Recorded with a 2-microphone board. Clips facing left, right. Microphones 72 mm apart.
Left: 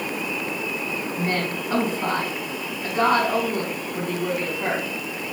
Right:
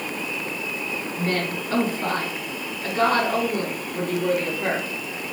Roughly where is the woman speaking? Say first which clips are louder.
Right 1 dB; left.